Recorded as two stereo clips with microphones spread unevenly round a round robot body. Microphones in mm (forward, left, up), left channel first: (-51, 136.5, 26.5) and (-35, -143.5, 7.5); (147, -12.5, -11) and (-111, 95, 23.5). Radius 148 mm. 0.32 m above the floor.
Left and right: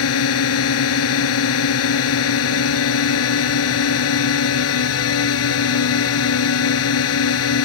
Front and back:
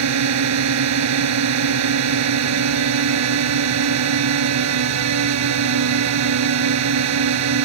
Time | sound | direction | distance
0.0 | a drone | 130° left | ?